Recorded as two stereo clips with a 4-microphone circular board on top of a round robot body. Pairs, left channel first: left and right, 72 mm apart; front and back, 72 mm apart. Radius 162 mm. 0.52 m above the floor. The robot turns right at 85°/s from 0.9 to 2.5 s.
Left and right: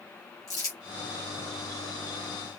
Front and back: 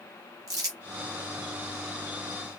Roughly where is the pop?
I don't hear a pop.